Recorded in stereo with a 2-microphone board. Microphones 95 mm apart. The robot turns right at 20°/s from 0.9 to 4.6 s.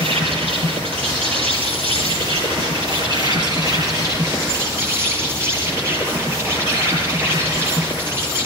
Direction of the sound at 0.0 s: 100° right.